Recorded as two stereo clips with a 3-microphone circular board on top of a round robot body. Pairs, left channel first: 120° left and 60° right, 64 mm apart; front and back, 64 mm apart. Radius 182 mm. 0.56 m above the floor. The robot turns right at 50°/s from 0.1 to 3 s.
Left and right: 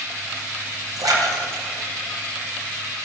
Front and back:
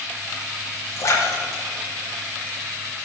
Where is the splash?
45° right, 3 m; by 2.9 s 50° left, 3 m.